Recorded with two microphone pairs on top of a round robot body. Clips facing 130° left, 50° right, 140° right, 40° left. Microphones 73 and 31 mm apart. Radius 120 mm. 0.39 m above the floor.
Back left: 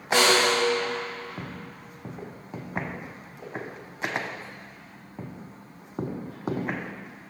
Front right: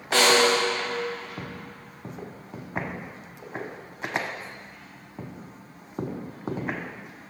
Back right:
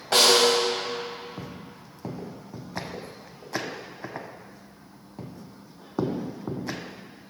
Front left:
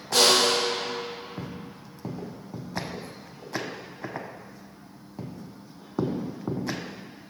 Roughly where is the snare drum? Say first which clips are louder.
Front right 1 dB, back right 2 dB; behind.